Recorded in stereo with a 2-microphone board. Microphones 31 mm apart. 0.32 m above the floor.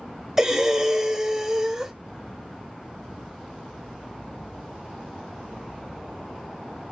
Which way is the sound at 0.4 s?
15° right (ahead or behind).